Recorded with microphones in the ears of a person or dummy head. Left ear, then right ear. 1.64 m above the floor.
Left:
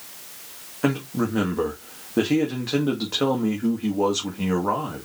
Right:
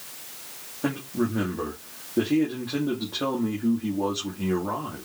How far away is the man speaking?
About 1.4 m.